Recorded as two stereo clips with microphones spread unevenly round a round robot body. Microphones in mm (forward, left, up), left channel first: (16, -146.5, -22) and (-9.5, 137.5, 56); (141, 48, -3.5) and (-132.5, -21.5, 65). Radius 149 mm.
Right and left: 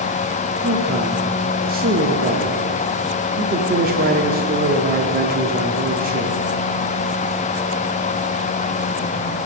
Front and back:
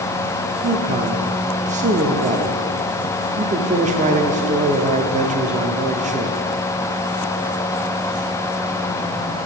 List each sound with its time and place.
0.6 s a man speaking: 140° left, 0.9 m